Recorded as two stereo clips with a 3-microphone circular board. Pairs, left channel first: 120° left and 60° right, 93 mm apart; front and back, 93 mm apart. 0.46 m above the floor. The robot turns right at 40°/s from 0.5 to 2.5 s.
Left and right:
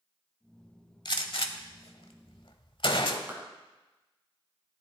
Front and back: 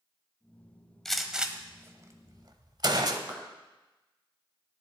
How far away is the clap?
About 4 m.